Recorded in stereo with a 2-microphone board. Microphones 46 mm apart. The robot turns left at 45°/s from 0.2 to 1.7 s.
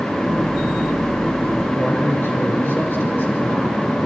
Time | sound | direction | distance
1.8 | a man speaking | 55° left (ahead or behind) | 5 m